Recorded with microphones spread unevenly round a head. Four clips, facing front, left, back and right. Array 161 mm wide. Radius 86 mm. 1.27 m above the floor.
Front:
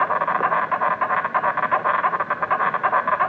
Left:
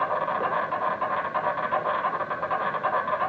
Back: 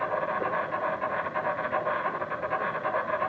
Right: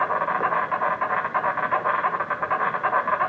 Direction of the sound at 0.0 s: 10° right.